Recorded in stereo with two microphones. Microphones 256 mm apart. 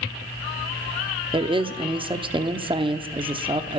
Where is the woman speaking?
20° right (ahead or behind), 0.9 m.